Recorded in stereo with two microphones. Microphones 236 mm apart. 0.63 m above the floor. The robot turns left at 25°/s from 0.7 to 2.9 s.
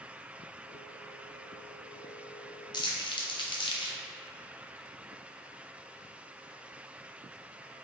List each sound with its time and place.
2.7 s crumpling: 20° left (ahead or behind), 0.5 m